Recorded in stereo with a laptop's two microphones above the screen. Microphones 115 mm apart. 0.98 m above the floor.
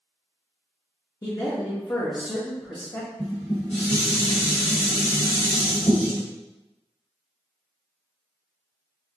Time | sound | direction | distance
1.2 | a man speaking | 40° left (ahead or behind) | 0.7 m
3.2 | dishes clattering | 80° left | 1.6 m